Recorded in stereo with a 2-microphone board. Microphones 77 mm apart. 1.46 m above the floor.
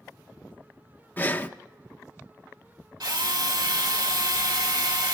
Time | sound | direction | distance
1.2 | breathing | 25° left (ahead or behind) | 0.6 m
3.0 | a drill | 75° right (ahead or behind) | 2 m